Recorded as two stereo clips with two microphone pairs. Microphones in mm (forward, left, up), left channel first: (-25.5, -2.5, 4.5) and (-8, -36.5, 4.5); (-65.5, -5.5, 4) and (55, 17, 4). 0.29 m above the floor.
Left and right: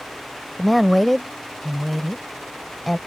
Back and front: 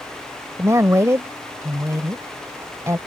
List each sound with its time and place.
0.6 s a woman speaking: 35° left